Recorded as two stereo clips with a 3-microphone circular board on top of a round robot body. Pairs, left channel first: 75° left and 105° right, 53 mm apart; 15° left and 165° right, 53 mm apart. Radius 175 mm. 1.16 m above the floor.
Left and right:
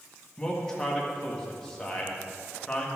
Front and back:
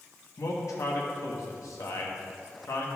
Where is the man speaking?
5° right, 1.7 m.